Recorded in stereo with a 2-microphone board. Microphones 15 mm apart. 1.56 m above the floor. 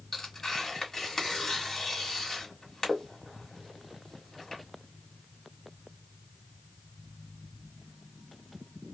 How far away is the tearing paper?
About 1.5 m.